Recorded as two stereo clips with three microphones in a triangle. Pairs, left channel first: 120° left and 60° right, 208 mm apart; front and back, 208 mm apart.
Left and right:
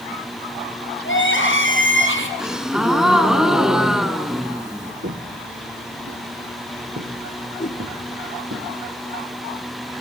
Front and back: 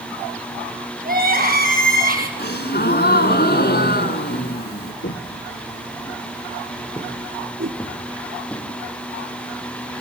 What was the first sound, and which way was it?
Crying, 140° left.